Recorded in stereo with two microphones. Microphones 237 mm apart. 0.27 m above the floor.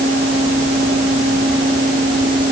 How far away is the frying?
I don't hear frying.